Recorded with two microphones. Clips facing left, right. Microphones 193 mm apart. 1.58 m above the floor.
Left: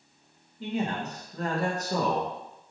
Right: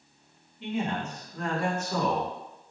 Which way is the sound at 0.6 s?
40° left (ahead or behind).